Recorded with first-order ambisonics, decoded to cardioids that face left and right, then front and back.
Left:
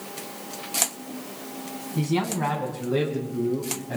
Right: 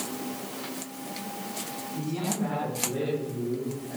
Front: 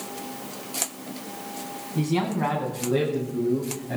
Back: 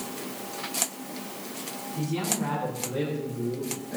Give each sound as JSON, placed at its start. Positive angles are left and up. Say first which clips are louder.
{"t": 1.9, "sound": "a man speaking", "louder": "left 7 dB, front 5 dB", "azimuth_deg": 45, "distance_m": 6.5}